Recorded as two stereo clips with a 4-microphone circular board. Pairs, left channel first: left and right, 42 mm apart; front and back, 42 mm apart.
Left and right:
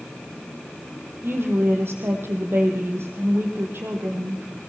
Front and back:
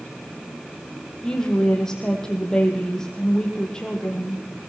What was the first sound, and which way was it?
A woman speaking, 75° right.